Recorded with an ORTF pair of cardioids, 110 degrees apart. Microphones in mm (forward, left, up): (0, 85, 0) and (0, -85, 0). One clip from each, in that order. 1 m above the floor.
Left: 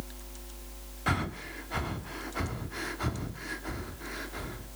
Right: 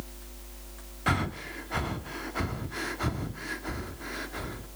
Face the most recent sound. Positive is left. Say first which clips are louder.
# right 2 dB
turn(degrees=-10)